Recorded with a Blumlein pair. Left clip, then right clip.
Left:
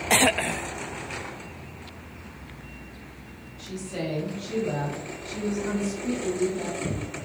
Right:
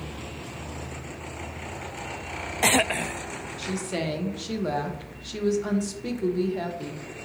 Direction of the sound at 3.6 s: 35° right.